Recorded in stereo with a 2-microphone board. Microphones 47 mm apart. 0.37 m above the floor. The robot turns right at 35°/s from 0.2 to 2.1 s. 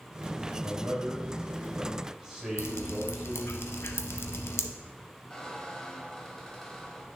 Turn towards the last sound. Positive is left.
turn(degrees=15)  # may be behind; listen again after turning